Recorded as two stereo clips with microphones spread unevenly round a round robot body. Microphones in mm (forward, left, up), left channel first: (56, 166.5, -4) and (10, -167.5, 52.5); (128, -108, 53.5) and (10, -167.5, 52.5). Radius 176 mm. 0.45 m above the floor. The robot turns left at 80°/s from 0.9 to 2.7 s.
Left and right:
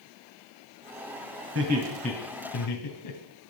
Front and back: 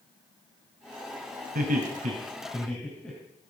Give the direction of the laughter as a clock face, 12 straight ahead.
5 o'clock.